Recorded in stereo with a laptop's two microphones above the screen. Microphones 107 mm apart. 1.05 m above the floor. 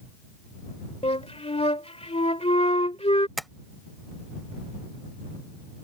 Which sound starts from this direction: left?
A flute, at 1.0 s.